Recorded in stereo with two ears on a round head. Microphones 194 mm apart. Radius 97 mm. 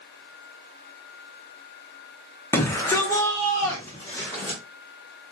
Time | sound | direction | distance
2.5 | a shout | 10° left (ahead or behind) | 0.7 m